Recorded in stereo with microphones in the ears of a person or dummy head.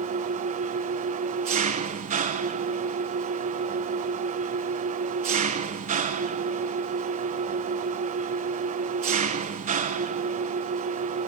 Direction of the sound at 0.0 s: 35° right (ahead or behind).